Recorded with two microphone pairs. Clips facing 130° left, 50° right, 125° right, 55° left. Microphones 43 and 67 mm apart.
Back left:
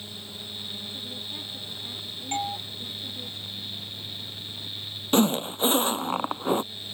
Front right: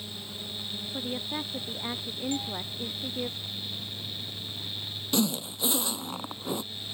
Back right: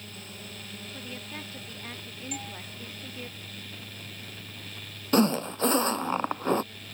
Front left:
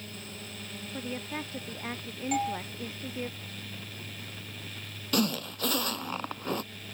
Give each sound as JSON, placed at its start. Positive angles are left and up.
{"t": 0.9, "sound": "a woman speaking", "azimuth_deg": -10}
{"t": 2.3, "sound": "a doorbell", "azimuth_deg": 100}
{"t": 5.1, "sound": "a zipper", "azimuth_deg": 175}